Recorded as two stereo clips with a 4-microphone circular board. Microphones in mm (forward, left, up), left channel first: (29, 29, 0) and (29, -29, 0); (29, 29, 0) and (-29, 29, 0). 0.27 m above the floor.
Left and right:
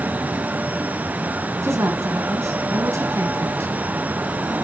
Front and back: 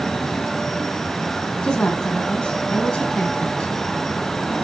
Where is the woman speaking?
70° right, 2 m.